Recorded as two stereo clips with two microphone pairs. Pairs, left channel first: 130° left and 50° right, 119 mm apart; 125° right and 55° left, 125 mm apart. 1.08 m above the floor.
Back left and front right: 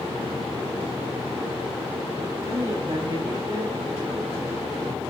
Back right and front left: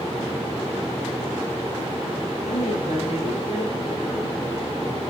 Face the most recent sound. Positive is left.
turn(degrees=-100)